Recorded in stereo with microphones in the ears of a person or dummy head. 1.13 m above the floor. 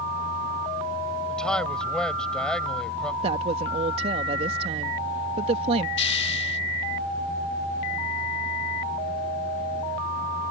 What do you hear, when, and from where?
1.3 s a man speaking: 5° left (ahead or behind)
3.2 s a woman speaking: 35° right (ahead or behind)
6.0 s a hiss: 30° left (ahead or behind)